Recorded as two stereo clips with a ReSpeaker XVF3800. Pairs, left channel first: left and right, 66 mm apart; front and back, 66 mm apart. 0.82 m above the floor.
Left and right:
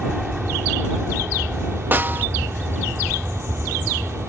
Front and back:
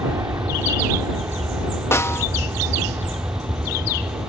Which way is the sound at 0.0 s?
175° right.